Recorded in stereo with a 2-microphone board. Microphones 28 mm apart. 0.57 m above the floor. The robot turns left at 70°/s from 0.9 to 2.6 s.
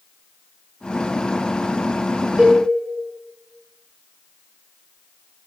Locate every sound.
2.4 s a cowbell: 35° right (ahead or behind), 0.7 m; by 2.6 s 40° right (ahead or behind), 0.7 m